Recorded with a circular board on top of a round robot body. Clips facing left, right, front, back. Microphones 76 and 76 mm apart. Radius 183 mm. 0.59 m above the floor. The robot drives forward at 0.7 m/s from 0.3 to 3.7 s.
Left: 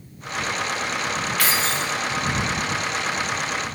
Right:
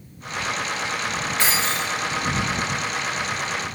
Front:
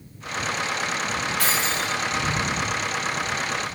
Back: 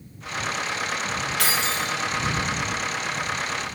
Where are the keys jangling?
155° right, 1.8 m; by 1.9 s 160° right, 2 m.